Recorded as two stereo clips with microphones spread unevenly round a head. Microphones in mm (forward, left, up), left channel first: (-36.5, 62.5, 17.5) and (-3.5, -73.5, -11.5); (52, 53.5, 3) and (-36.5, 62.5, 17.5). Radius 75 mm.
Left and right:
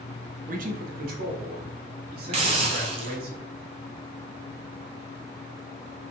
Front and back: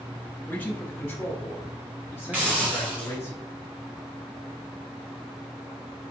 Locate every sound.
0.5 s a man speaking: 75° right, 1.1 m
2.3 s a hiss: 120° right, 1.1 m